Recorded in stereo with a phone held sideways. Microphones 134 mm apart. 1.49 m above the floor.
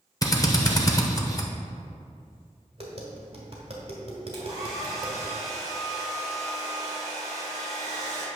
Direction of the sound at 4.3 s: 30° right (ahead or behind).